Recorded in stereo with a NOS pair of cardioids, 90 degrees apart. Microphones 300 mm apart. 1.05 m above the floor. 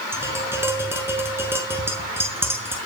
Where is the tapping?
5° right, 5.5 m.